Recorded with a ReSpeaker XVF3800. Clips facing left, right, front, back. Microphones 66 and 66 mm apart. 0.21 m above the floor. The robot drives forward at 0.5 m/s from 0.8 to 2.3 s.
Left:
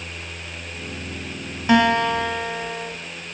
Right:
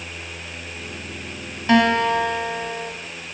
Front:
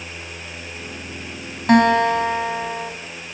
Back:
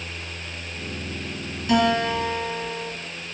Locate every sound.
1.7 s a guitar: 15° left, 1.7 m; by 2.9 s 20° left, 1.4 m